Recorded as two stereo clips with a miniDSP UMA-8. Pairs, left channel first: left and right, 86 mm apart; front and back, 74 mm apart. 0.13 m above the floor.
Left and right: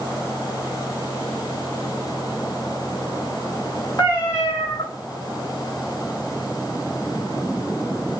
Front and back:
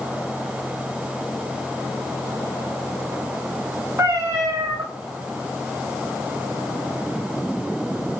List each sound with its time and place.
4.0 s a cat meowing: 135° left, 2.5 m